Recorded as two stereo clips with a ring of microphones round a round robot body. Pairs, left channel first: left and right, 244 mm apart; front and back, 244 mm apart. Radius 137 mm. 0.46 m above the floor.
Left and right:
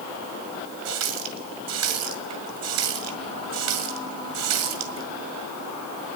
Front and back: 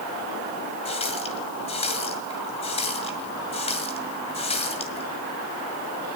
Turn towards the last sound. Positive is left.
turn(degrees=-70)